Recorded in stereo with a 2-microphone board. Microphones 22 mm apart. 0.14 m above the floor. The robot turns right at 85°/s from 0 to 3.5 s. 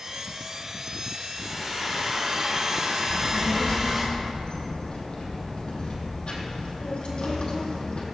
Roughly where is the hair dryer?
Behind left.